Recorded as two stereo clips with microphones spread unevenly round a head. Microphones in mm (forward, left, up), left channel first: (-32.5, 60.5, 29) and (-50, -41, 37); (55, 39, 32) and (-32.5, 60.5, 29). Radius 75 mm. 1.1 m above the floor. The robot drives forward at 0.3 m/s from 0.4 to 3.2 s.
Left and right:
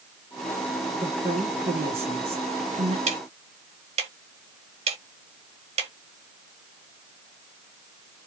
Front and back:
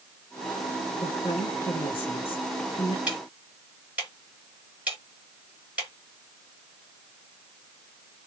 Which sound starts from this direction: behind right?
Ticking, at 3.1 s.